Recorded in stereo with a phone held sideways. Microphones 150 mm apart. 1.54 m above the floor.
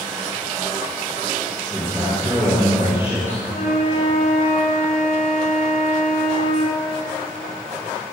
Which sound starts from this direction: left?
A flute, at 3.5 s.